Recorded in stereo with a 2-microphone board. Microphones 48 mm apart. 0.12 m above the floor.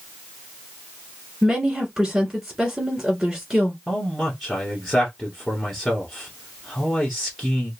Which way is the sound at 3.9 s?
5° left (ahead or behind).